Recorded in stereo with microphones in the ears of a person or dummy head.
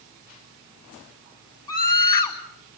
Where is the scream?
20° left (ahead or behind), 4.5 m.